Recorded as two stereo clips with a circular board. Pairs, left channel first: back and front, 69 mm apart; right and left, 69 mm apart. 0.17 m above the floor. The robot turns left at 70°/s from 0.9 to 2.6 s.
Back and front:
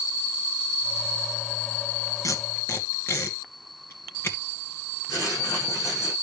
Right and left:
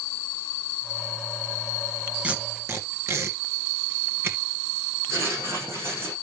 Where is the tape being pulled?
160° left, 2 m; by 4.4 s 135° left, 2 m.